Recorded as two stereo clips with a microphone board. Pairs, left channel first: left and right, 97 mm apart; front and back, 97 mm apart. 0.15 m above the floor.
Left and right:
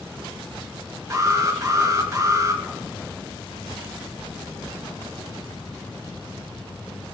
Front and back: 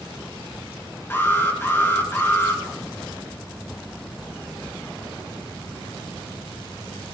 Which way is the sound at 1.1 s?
55° right.